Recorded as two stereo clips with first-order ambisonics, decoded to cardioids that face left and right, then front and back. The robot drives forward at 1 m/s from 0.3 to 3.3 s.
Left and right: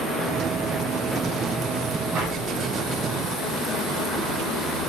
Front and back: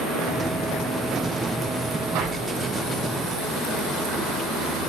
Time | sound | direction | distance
2.1 | an explosion | 150° right | 4.5 m